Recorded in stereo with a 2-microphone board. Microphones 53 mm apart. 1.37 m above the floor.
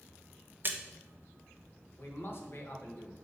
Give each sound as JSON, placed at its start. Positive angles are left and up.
{"t": 0.6, "sound": "a splash", "side_deg": -40, "distance_m": 0.7}
{"t": 2.0, "sound": "a man speaking", "side_deg": 50, "distance_m": 1.4}